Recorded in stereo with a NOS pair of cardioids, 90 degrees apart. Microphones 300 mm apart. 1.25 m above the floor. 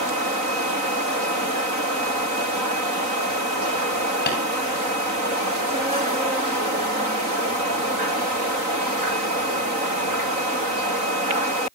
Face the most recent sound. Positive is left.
turn(degrees=35)